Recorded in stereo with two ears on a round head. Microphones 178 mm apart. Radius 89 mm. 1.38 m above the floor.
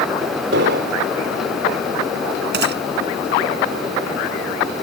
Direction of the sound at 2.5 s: 60° right (ahead or behind).